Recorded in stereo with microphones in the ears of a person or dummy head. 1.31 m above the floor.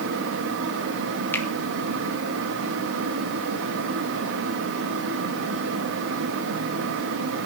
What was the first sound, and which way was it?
A fan, 70° right (ahead or behind).